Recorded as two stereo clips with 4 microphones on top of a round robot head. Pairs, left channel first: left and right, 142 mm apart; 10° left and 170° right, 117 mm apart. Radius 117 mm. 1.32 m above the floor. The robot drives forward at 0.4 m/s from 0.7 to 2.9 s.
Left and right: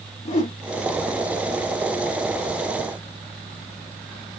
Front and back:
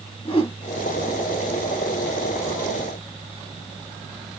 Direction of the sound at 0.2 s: 50° left.